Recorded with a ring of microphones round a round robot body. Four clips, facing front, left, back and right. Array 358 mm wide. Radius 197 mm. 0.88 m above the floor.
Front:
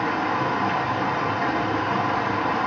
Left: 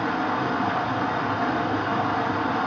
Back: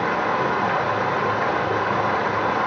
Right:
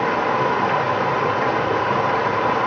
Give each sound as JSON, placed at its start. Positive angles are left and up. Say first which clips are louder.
{"t": 0.0, "sound": "running water", "louder": "right 5 dB, back 2 dB", "azimuth_deg": -115, "distance_m": 1.0}